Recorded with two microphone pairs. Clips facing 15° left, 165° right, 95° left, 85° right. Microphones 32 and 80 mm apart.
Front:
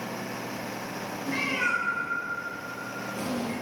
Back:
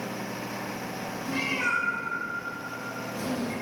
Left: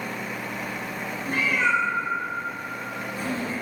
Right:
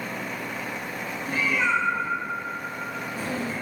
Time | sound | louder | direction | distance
1.3 | a cat meowing | front 1 dB, left 1 dB | 70° left | 0.8 m